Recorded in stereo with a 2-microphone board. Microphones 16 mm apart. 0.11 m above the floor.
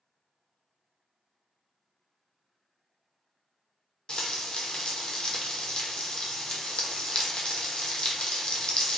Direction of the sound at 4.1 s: 80° left.